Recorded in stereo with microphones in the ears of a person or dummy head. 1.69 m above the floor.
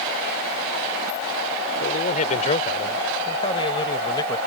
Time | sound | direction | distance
1.8 | a man speaking | 45° left (ahead or behind) | ?